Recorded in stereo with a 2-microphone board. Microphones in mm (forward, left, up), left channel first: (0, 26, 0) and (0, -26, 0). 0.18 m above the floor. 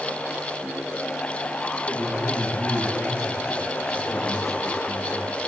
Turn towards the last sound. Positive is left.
turn(degrees=75)  # may be behind; listen again after turning